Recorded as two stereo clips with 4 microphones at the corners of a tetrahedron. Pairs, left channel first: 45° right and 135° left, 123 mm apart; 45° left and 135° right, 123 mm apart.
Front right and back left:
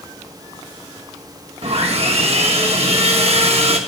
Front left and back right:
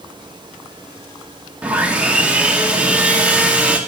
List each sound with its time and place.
1.6 s sawing: 150° left, 1.1 m